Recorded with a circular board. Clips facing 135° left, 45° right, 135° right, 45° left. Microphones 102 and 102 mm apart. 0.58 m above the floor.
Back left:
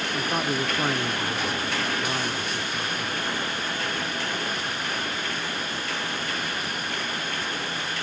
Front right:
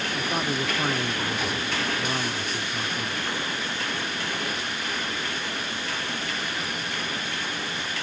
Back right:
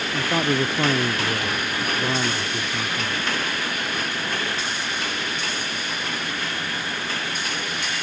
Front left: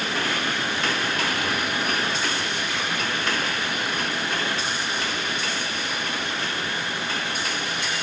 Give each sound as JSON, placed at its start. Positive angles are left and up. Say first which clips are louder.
{"t": 0.1, "sound": "a man speaking", "louder": "back left 2 dB, back right 8 dB", "azimuth_deg": -145}